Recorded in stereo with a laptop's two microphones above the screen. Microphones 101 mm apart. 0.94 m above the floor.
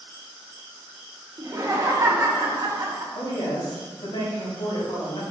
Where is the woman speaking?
70° left (ahead or behind), 1.8 m.